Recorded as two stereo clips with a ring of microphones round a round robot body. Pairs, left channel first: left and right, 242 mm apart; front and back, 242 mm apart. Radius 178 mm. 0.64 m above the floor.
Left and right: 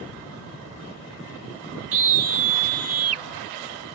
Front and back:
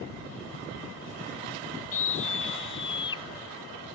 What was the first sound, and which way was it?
A scream, 65° right.